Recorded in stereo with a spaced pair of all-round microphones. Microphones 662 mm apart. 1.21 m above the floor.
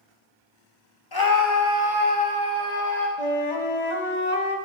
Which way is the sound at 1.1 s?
35° left (ahead or behind).